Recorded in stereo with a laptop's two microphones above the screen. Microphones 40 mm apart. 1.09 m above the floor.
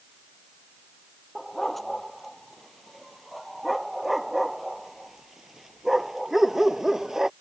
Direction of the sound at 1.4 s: 5° left (ahead or behind).